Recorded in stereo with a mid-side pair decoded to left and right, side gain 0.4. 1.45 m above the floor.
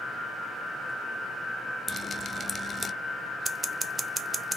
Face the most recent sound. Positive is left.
turn(degrees=-20)